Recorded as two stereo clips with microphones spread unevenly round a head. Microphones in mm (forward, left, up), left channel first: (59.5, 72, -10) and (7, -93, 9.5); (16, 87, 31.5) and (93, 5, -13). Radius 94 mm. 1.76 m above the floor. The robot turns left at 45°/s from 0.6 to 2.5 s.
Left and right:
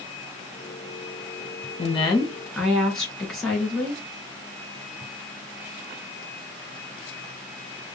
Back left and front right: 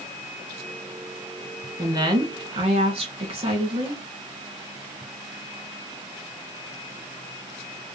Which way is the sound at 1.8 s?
15° left.